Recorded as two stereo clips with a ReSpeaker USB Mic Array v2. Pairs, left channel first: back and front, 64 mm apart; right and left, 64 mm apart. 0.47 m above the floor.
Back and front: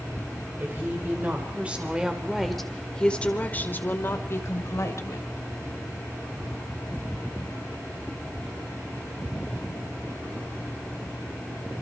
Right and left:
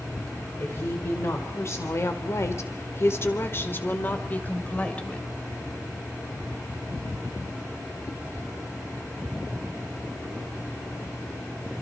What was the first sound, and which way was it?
A woman speaking, 50° right.